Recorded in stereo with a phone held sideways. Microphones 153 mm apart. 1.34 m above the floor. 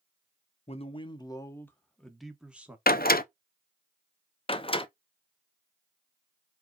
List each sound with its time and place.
0.7 s a man speaking: 45° left (ahead or behind), 0.9 m; by 2.8 s 10° right (ahead or behind), 1.3 m
2.9 s a door slam: 80° left, 0.5 m
4.5 s a door slam: 35° left (ahead or behind), 0.5 m